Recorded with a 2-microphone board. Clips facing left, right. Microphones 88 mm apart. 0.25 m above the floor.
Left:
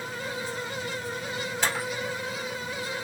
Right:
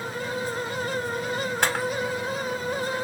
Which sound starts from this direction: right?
A camera shutter, at 1.6 s.